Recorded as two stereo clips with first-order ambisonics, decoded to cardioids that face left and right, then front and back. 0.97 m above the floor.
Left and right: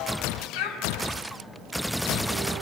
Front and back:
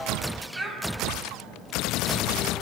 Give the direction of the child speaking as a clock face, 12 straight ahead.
9 o'clock.